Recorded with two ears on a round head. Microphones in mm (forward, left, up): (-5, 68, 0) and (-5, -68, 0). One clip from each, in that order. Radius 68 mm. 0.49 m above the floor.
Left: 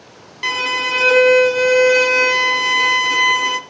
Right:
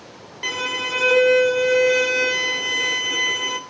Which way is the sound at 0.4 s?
25° left (ahead or behind).